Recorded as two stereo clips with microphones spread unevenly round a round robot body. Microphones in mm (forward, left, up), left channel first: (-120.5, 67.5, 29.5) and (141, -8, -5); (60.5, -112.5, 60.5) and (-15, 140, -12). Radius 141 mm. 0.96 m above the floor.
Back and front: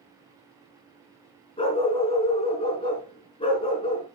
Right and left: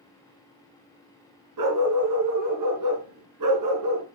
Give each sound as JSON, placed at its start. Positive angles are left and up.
{"t": 1.6, "sound": "a dog barking", "azimuth_deg": 95, "distance_m": 3.5}